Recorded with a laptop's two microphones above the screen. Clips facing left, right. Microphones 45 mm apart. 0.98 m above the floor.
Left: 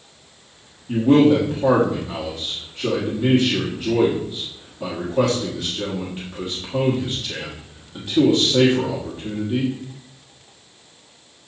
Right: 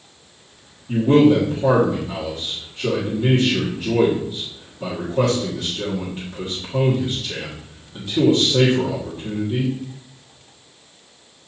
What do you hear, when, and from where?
0.9 s a man speaking: 15° left (ahead or behind), 1.8 m